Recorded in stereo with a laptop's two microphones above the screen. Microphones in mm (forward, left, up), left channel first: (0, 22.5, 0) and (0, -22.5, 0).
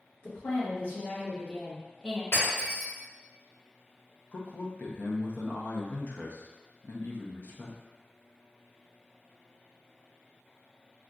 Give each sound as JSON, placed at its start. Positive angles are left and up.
{"t": 0.2, "sound": "a woman speaking", "side_deg": 55, "distance_m": 1.3}
{"t": 2.3, "sound": "breaking glass", "side_deg": 70, "distance_m": 1.5}
{"t": 4.3, "sound": "a man speaking", "side_deg": 50, "distance_m": 0.7}